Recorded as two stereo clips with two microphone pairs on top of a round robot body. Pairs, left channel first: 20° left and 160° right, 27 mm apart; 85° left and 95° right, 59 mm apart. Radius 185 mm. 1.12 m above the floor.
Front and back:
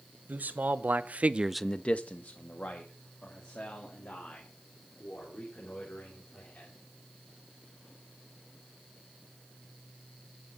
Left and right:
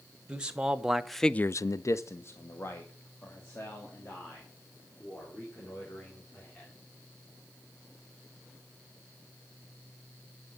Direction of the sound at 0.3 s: 170° right.